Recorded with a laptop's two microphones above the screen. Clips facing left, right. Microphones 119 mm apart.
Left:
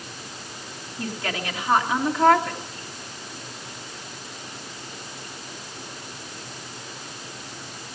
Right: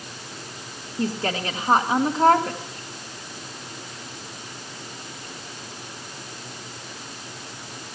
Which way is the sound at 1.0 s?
35° right (ahead or behind).